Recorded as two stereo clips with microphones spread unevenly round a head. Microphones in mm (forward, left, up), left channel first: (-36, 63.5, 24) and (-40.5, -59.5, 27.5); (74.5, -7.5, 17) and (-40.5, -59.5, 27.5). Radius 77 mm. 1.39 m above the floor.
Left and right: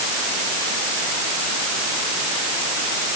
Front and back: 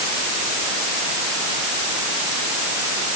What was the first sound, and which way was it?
Only background noise.